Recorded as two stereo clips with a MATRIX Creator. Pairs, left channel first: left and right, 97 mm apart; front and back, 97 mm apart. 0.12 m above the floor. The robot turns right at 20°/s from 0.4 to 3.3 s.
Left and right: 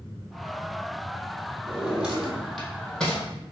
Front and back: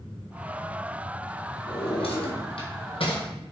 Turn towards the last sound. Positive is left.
turn(degrees=15)